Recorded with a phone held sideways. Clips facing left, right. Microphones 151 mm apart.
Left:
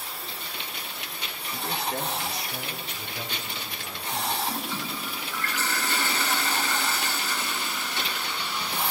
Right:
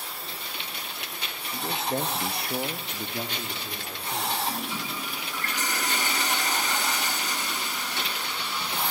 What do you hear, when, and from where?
1.5 s a man speaking: 10° right (ahead or behind), 1.4 m; by 4.3 s 45° right (ahead or behind), 3.5 m
4.4 s a toilet flushing: 15° right (ahead or behind), 4.5 m